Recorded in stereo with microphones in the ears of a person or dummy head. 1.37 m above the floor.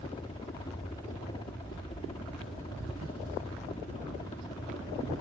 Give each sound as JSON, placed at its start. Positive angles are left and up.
{"t": 0.0, "sound": "a helicopter", "side_deg": 30}